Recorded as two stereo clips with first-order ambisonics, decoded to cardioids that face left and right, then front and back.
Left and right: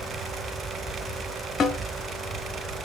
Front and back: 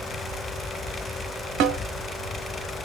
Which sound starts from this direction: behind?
A snare drum, at 1.6 s.